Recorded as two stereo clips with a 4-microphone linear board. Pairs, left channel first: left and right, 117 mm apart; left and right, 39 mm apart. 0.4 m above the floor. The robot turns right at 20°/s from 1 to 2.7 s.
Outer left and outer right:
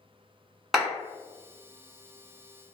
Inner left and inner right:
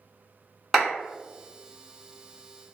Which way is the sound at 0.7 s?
Centre (ahead or behind).